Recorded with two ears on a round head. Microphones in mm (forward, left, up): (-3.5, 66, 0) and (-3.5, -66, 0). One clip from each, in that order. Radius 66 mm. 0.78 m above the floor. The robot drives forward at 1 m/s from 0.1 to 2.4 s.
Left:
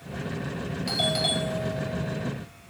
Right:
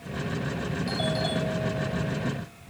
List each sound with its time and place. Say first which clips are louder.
0.9 s a doorbell: left 5 dB; 55° left (ahead or behind); by 2.3 s 45° left (ahead or behind)